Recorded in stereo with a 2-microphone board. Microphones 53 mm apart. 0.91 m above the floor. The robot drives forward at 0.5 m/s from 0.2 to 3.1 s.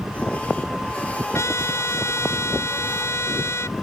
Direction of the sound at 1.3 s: 55° left (ahead or behind).